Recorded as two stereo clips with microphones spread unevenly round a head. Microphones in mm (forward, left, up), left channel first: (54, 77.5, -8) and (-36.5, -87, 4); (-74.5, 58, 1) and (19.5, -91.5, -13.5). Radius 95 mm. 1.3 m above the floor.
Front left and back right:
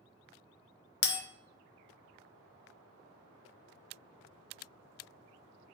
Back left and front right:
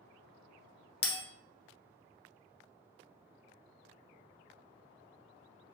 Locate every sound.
1.0 s a bell: 65° left, 0.6 m